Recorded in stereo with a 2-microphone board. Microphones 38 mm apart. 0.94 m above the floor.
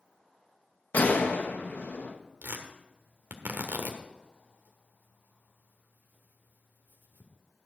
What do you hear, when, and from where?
0.9 s a gunshot: 50° left (ahead or behind), 1.0 m
2.4 s tearing paper: 65° right (ahead or behind), 1.3 m